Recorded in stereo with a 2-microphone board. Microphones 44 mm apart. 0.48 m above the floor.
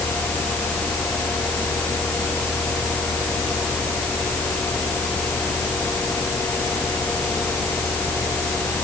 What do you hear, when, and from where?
Only background noise.